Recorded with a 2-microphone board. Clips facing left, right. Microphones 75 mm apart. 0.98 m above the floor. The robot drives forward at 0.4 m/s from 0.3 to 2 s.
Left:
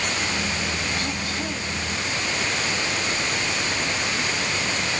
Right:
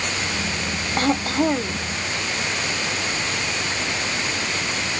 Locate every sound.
1.0 s throat clearing: 50° right (ahead or behind)